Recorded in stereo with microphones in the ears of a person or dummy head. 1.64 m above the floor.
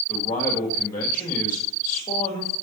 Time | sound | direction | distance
0.1 | a man speaking | 25° left (ahead or behind) | 1.9 m